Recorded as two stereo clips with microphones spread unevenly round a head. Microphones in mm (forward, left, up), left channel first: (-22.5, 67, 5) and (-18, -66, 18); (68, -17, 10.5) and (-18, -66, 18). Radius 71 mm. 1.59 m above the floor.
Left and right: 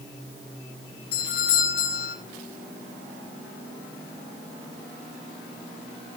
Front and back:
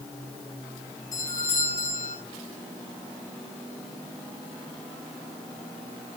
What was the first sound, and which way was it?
A doorbell, 100° left.